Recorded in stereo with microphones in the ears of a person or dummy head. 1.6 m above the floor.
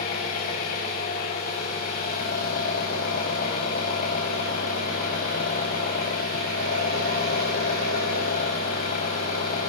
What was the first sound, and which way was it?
An engine running, 35° left (ahead or behind).